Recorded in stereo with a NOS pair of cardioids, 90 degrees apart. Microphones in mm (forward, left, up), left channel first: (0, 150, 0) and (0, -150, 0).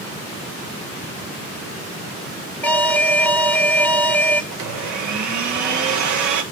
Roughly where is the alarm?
Ahead.